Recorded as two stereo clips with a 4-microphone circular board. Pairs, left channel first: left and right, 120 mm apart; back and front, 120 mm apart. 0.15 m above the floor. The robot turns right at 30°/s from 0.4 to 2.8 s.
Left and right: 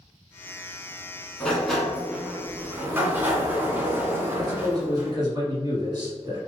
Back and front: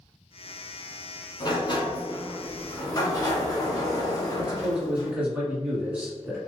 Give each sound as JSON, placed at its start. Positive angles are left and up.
{"t": 1.4, "sound": "a sliding door", "azimuth_deg": 170, "distance_m": 1.0}
{"t": 4.3, "sound": "a man speaking", "azimuth_deg": -70, "distance_m": 1.7}